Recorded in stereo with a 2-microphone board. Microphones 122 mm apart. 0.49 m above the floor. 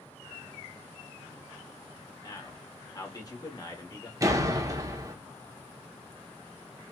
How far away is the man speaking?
About 1.0 m.